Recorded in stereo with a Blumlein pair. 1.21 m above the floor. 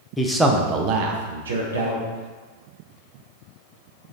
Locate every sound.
0.2 s a man speaking: 10° left, 0.5 m; by 2.0 s 80° right, 1.0 m